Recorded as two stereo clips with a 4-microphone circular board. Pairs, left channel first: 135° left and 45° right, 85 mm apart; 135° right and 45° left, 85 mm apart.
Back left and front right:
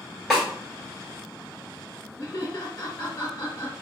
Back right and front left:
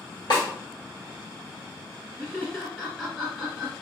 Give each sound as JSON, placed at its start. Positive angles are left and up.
{"t": 0.3, "sound": "a snare drum", "azimuth_deg": -135, "distance_m": 1.6}
{"t": 2.2, "sound": "laughter", "azimuth_deg": 135, "distance_m": 1.3}